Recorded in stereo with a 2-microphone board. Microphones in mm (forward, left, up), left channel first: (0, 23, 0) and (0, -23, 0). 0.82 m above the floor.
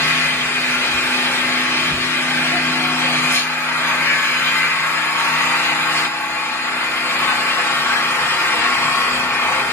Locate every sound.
0.0 s an engine running: 80° left, 1.0 m